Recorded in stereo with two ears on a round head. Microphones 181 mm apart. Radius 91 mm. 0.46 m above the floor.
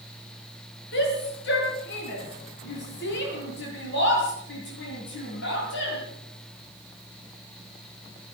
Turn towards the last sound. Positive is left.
turn(degrees=60)  # may be behind; listen again after turning